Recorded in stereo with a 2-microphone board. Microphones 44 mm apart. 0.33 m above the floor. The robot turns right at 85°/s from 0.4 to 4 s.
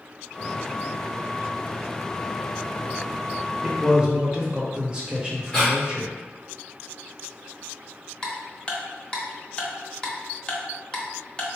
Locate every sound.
3.6 s a man speaking: 15° right (ahead or behind), 0.9 m; by 6.1 s 20° right (ahead or behind), 0.9 m
5.5 s breathing: 15° left (ahead or behind), 1.6 m
8.2 s ticking: 20° left (ahead or behind), 0.7 m